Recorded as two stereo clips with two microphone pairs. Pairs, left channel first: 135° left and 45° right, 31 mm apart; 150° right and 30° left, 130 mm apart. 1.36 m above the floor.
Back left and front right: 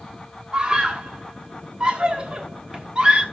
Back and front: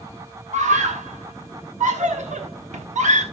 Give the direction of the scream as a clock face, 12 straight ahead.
12 o'clock.